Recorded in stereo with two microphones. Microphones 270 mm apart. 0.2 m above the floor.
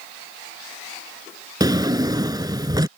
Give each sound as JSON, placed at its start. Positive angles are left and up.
{"t": 1.6, "sound": "a drawer", "side_deg": -15}